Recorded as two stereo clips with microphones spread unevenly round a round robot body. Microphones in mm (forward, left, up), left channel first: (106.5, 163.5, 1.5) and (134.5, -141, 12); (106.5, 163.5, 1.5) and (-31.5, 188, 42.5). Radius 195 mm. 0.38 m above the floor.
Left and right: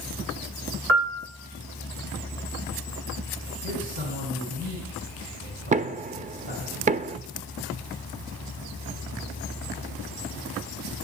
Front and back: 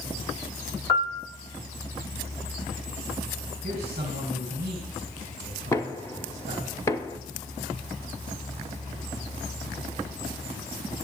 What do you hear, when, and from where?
0.9 s a piano: 45° right, 1.4 m
3.6 s a man speaking: 135° right, 3 m
5.7 s knocking: 30° right, 0.5 m